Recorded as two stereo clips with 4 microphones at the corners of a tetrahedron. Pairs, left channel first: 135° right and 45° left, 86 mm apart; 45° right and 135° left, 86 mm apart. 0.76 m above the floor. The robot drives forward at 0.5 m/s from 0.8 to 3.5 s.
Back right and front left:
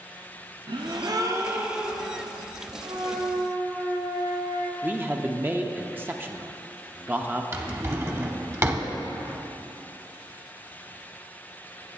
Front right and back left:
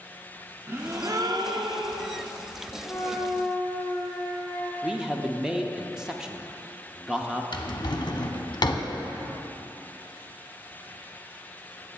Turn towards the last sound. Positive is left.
turn(degrees=-10)